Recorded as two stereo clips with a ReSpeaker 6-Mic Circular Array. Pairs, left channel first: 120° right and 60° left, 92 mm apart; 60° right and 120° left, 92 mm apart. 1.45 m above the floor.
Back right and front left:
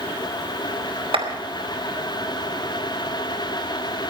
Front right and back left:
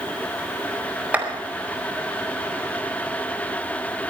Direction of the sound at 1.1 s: 45° left.